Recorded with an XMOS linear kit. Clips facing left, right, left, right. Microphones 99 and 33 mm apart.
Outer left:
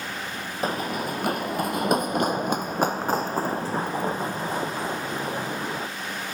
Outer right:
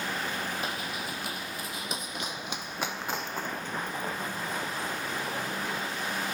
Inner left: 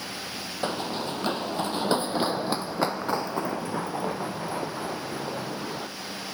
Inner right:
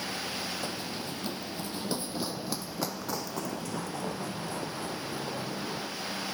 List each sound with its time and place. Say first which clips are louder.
0.6 s running footsteps: outer left 8 dB, inner left 7 dB; 40° left (ahead or behind); by 5.9 s 25° left (ahead or behind)